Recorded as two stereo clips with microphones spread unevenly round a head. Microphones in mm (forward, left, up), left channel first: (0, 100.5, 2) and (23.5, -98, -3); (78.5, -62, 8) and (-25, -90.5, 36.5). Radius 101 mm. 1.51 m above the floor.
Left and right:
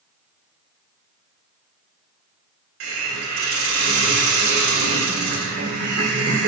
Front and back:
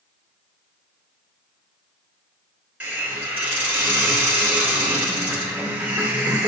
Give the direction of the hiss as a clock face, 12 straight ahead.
3 o'clock.